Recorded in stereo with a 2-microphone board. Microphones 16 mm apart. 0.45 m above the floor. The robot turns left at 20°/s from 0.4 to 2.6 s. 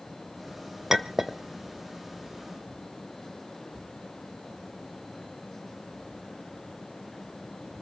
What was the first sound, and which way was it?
A clink, 25° right (ahead or behind).